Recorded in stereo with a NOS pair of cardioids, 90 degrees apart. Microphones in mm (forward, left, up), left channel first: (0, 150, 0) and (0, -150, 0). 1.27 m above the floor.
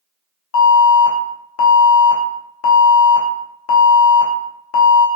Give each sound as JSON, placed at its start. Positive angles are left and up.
{"t": 0.5, "sound": "an alarm", "azimuth_deg": 60, "distance_m": 0.8}